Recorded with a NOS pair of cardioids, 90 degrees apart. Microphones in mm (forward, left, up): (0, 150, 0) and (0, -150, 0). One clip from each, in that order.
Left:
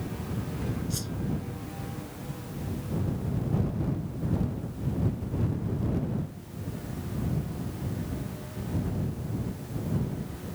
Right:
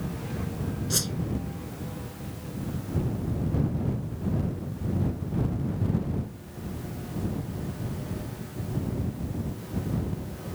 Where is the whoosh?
65° right.